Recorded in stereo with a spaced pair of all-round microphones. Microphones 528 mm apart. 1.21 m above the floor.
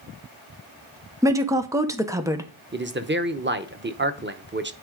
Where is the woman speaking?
5° right (ahead or behind), 0.8 m.